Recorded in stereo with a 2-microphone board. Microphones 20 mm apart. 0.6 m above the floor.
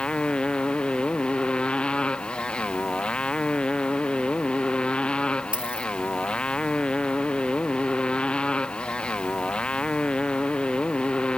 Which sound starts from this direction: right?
A dropped coin, at 5.5 s.